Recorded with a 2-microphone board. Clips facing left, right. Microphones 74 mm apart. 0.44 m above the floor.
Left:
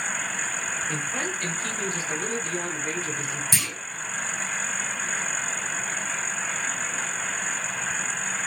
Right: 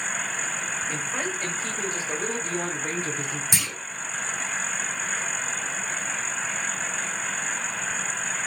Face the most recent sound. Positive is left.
turn(degrees=-20)  # may be behind; listen again after turning